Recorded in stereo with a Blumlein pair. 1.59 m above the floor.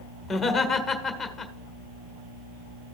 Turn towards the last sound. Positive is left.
turn(degrees=10)